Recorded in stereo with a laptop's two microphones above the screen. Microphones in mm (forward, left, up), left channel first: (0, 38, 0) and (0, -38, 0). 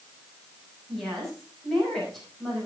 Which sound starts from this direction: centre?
A woman speaking, at 0.9 s.